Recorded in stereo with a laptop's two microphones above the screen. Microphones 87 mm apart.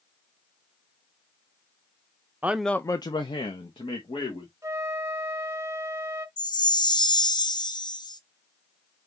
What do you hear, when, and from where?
2.4 s a man speaking: 20° right (ahead or behind), 0.6 m; by 4.5 s 75° left (ahead or behind), 2.0 m
4.6 s a flute: 35° right (ahead or behind), 0.8 m
6.4 s a chime: 55° left (ahead or behind), 0.6 m